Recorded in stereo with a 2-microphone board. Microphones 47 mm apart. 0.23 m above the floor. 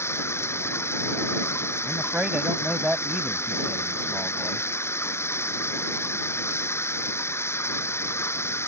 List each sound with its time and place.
0.0 s running water: 65° left (ahead or behind)
1.9 s a man speaking: 25° right (ahead or behind)